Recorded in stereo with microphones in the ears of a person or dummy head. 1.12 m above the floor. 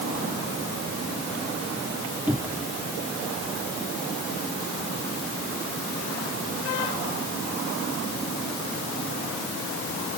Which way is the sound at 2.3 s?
5° right (ahead or behind).